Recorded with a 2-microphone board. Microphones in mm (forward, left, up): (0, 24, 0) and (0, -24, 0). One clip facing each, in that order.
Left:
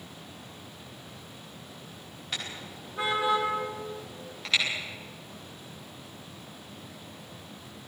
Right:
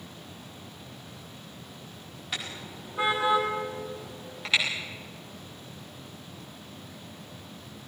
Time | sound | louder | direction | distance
2.3 | a car horn | right 1 dB | 5° right (ahead or behind) | 8.5 m